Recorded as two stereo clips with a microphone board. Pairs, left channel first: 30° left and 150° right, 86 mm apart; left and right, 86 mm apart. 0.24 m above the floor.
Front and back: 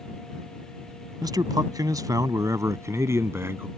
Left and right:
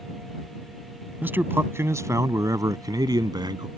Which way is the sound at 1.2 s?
150° right.